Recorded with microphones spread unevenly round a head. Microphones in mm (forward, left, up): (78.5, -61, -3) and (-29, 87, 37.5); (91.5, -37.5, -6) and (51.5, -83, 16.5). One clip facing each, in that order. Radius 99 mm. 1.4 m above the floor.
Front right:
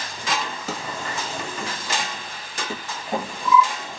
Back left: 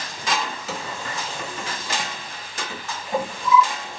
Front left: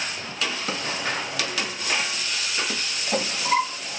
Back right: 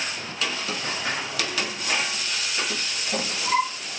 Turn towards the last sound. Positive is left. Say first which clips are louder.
# front right 1 dB, front left 1 dB
turn(degrees=0)